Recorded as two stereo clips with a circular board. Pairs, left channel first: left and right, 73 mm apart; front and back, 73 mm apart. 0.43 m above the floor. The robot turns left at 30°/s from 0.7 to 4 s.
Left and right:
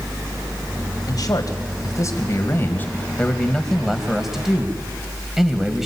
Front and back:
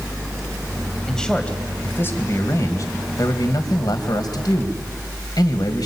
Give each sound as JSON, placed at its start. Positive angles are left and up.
{"t": 1.1, "sound": "a man speaking", "azimuth_deg": 85, "distance_m": 2.5}